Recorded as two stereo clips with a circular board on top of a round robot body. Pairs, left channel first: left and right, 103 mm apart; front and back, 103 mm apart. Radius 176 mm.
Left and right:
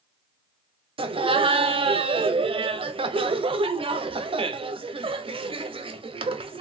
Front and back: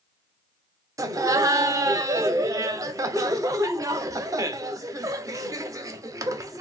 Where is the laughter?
120° right, 0.6 m.